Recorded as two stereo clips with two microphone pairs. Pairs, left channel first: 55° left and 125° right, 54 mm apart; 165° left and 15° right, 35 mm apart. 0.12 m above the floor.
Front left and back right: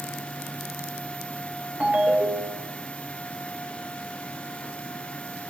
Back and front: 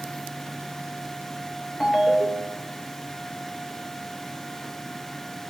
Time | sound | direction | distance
1.8 | a ringtone | 110° right | 1.0 m